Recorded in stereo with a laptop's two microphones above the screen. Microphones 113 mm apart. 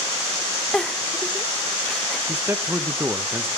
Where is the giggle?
5° left (ahead or behind), 0.8 m.